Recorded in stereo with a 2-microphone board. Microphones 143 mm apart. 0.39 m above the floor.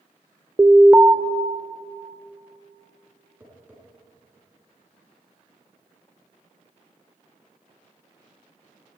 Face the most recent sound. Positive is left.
turn(degrees=-10)  # may be behind; listen again after turning